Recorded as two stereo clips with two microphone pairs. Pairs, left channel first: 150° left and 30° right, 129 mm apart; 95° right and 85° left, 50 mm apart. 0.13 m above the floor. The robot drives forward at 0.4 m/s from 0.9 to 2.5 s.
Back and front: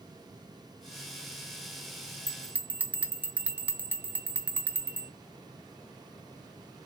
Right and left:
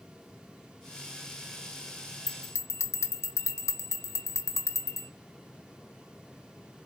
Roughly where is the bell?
Right.